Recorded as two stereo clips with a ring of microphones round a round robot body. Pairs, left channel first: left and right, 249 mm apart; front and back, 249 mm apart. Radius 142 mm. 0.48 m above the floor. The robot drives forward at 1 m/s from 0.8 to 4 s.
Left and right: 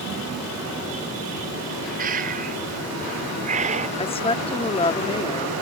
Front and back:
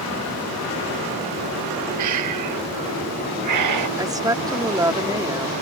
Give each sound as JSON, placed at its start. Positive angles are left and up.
{"t": 2.0, "sound": "breathing", "azimuth_deg": -155}
{"t": 4.0, "sound": "a woman speaking", "azimuth_deg": 120}